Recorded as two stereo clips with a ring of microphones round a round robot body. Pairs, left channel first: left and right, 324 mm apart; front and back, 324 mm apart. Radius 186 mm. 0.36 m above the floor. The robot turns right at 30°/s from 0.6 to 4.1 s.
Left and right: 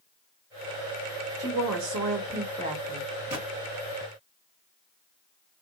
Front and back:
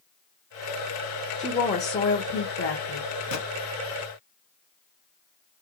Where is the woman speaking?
65° right, 1.3 m; by 3.1 s 15° right, 1.3 m.